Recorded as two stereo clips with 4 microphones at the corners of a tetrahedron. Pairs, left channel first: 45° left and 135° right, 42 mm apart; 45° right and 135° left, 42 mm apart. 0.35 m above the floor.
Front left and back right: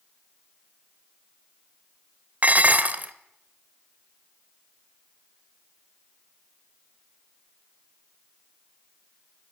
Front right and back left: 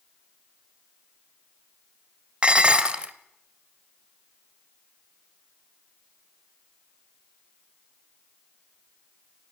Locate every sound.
2.4 s dishes clattering: 175° right, 0.9 m